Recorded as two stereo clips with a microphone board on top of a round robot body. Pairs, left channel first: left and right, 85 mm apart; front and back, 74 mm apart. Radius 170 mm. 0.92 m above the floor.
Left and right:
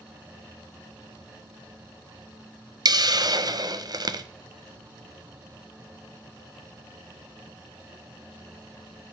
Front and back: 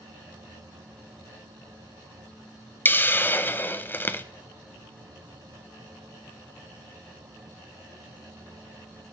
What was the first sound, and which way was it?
A hiss, 60° right.